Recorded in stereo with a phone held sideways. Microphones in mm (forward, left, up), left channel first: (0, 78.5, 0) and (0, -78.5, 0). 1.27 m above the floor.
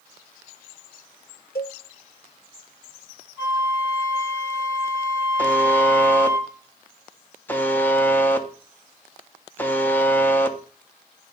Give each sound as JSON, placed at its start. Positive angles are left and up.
{"t": 1.6, "sound": "a cowbell", "side_deg": 75, "distance_m": 1.4}
{"t": 3.4, "sound": "a flute", "side_deg": -20, "distance_m": 4.0}
{"t": 5.4, "sound": "a buzzer", "side_deg": 10, "distance_m": 1.0}